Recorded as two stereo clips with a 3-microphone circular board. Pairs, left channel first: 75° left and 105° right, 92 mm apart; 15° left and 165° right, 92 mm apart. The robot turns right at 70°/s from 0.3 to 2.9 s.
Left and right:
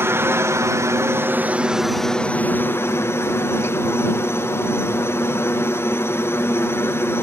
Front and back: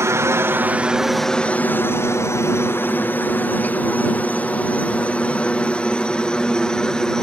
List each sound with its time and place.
0.0 s a helicopter: 140° right; by 7.2 s 90° left